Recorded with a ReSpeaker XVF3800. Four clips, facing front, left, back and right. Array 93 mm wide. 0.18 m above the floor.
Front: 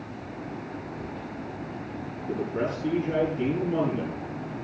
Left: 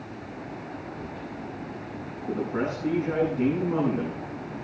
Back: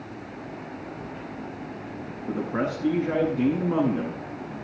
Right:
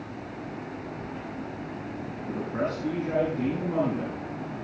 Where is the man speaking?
170° left, 8 m.